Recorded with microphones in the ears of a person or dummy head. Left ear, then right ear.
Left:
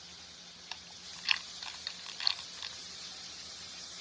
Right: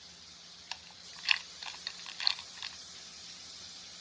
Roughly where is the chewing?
Right.